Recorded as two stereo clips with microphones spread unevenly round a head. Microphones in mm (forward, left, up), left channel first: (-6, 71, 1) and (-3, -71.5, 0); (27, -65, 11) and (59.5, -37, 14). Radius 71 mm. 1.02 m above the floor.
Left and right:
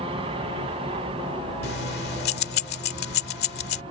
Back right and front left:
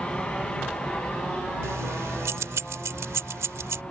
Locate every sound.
0.0 s an aircraft: 100° right
1.6 s keys jangling: 70° left